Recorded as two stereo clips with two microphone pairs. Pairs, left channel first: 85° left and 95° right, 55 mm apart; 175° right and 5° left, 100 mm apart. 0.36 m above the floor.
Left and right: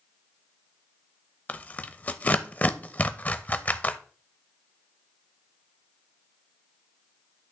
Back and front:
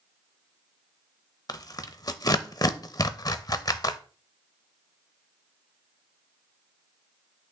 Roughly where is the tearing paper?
Behind left.